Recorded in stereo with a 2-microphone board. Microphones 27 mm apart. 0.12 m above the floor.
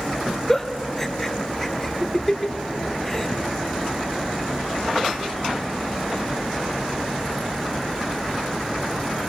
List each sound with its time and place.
0.5 s a giggle: 15° left (ahead or behind), 0.8 m